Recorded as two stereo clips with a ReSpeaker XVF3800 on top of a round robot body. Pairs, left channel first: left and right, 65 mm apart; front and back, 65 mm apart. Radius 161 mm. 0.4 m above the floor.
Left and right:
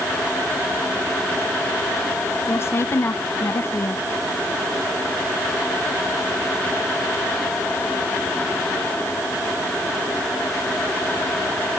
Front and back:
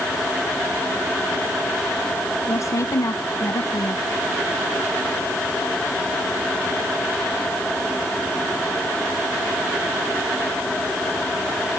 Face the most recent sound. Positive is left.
turn(degrees=40)